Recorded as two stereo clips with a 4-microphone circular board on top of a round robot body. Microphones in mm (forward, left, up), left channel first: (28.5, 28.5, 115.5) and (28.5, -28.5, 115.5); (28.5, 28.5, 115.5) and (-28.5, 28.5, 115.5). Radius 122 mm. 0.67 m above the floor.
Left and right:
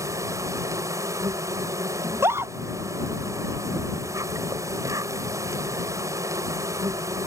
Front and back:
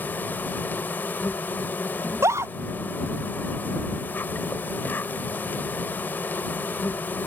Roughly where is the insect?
Ahead right.